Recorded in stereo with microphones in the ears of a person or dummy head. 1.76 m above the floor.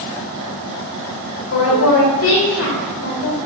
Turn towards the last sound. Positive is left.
turn(degrees=80)